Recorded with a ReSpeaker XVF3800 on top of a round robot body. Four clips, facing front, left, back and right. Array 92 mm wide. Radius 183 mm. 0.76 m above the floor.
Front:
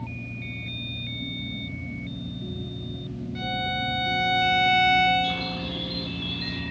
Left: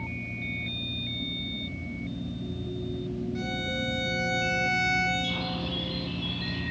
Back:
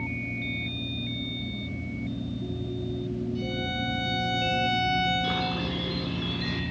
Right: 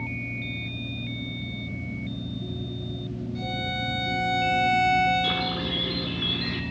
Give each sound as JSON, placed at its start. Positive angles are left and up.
{"t": 3.4, "sound": "a violin", "azimuth_deg": 20, "distance_m": 4.5}
{"t": 5.2, "sound": "a bird", "azimuth_deg": -120, "distance_m": 4.5}